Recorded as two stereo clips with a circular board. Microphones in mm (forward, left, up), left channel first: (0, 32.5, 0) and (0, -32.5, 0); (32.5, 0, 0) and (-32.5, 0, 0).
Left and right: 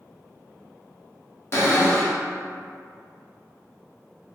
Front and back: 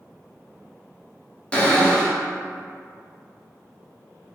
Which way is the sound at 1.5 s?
65° left.